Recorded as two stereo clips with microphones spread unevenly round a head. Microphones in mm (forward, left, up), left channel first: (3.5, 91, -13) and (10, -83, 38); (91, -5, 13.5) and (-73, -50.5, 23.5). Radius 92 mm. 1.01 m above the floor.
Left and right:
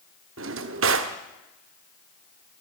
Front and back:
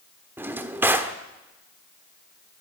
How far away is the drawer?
About 1.4 m.